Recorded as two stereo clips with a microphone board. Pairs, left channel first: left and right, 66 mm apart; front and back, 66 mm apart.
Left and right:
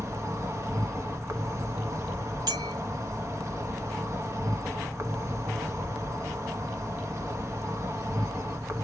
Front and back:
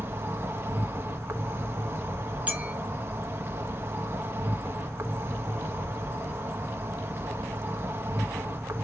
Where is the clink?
115° right, 1.6 m.